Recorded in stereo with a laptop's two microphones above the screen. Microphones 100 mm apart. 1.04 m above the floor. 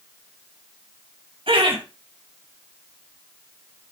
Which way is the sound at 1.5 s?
75° right (ahead or behind).